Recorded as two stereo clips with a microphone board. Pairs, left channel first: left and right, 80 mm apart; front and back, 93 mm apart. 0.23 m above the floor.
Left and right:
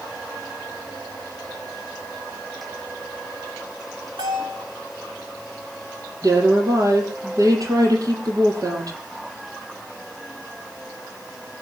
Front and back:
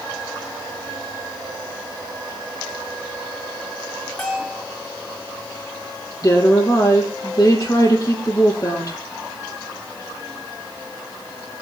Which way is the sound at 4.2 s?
70° right.